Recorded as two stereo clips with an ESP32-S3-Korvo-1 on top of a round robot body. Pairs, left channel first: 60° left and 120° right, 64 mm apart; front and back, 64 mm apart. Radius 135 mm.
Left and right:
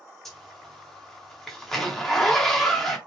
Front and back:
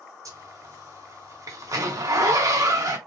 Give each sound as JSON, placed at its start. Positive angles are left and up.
{"t": 0.2, "sound": "a zipper", "azimuth_deg": 145, "distance_m": 1.3}